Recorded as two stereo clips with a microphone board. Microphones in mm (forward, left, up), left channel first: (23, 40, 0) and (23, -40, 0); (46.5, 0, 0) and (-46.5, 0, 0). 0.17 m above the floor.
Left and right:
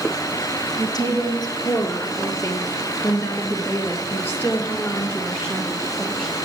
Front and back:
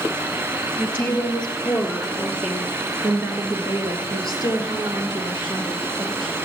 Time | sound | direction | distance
0.8 | a woman speaking | 70° left | 3 m